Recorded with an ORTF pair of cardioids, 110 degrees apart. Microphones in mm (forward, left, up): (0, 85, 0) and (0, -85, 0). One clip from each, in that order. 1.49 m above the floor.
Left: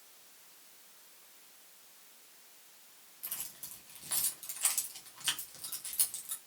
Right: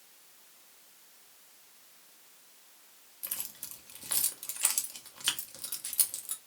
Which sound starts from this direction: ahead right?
Keys jangling, at 3.2 s.